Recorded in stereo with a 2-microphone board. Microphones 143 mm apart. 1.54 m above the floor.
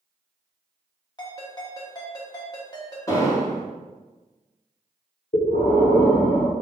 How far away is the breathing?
About 1.3 m.